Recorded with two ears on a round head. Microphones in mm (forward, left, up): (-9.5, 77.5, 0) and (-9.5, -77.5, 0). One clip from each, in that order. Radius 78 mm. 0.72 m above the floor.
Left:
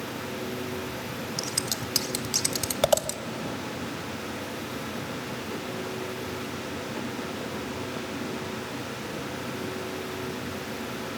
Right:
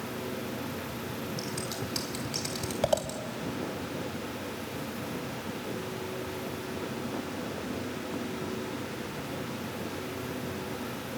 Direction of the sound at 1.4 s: 50° left (ahead or behind).